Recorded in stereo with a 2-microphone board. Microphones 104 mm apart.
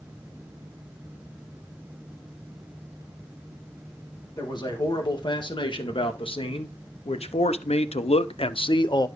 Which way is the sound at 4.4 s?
45° left (ahead or behind).